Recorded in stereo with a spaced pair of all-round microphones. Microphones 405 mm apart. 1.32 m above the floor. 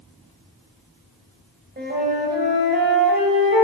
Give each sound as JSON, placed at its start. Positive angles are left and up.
{"t": 1.8, "sound": "a flute", "side_deg": -25, "distance_m": 3.0}